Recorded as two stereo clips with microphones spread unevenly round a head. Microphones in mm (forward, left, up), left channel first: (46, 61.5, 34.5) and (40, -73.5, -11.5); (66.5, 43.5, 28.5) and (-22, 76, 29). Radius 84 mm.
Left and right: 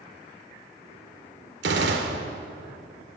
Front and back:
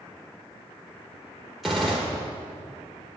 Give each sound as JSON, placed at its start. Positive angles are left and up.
{"t": 1.6, "sound": "a gunshot", "azimuth_deg": -110, "distance_m": 0.9}